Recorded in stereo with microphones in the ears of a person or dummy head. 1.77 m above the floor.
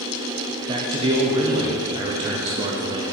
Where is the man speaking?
20° right (ahead or behind), 0.6 m.